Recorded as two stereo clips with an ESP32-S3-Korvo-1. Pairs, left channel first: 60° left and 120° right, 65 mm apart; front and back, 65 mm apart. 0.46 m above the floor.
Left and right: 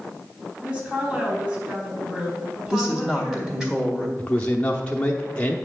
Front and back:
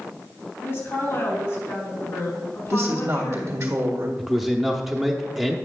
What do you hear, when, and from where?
0.6 s a woman speaking: 50° right, 3.5 m
2.7 s a woman speaking: 155° left, 1.5 m
4.2 s a man speaking: 95° left, 0.8 m